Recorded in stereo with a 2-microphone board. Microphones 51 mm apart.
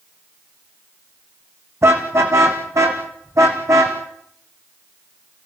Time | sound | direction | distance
1.8 | a car horn | 65° right (ahead or behind) | 4 m